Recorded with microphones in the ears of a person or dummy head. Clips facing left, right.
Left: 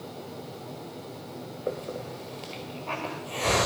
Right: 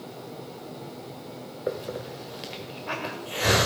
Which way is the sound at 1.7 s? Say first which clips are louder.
Right 2 dB; 20° right (ahead or behind).